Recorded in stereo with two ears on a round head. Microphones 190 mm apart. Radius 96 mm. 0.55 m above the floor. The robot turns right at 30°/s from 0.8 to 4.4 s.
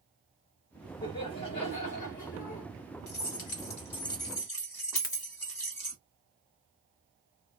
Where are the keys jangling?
125° left, 1.2 m; by 6.0 s 165° left, 1.2 m.